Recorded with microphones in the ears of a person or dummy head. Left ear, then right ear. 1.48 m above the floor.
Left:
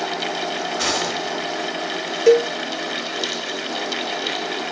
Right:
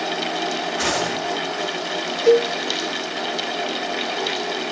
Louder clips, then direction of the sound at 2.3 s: Left 1 dB; 35° left (ahead or behind).